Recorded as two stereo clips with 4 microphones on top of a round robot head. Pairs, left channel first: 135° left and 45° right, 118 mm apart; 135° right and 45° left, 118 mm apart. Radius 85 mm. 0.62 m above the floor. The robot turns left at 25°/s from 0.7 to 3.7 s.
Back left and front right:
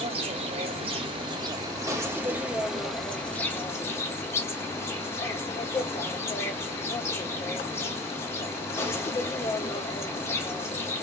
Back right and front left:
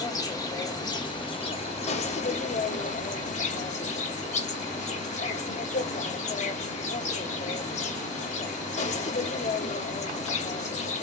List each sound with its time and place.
0.0 s an insect: 80° right, 1.5 m; by 11.0 s 155° right, 1.5 m